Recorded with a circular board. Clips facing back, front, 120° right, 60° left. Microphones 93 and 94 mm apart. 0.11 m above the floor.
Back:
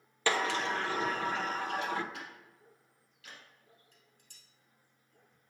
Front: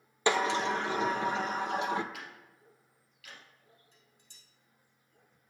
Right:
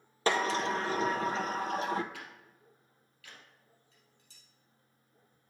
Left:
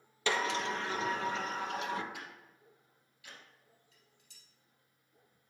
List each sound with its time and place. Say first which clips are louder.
0.3 s a sliding door: front 3 dB, right 4 dB; 70° right, 0.6 m
2.1 s ticking: even, even; 130° left, 2.5 m
3.9 s dishes clattering: front 1 dB, right 1 dB; 150° left, 2.5 m